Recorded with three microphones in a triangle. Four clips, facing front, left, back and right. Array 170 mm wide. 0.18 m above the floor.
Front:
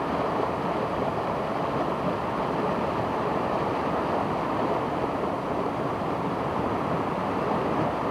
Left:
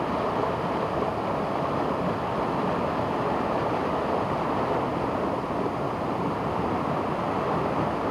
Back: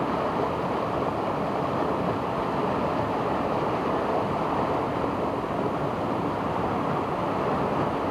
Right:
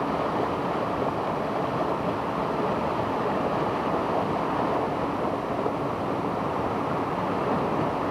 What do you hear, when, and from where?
Only background noise.